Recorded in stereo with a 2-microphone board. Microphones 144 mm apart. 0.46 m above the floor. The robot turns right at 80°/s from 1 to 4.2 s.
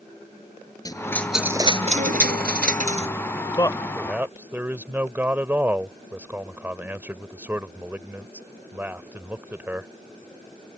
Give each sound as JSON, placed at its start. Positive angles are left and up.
{"t": 0.8, "sound": "a dropped coin", "azimuth_deg": 155}
{"t": 3.6, "sound": "a man speaking", "azimuth_deg": 145}